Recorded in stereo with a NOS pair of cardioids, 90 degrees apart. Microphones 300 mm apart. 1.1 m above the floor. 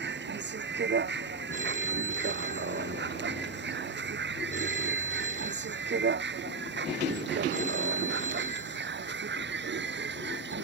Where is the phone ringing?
25° right.